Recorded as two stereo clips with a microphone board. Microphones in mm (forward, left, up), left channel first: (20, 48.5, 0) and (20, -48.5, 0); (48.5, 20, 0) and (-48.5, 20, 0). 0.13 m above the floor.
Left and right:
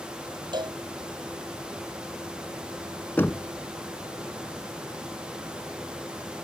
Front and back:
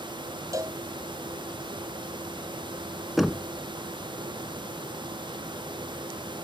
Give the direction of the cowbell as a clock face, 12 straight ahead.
4 o'clock.